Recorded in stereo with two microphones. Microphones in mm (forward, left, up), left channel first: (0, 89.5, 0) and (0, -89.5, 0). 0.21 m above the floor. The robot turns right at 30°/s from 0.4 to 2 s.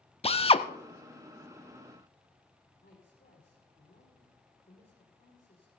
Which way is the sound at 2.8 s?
55° left (ahead or behind).